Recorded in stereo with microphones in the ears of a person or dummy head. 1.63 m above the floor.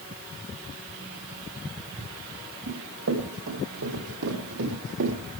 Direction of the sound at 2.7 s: 70° right (ahead or behind).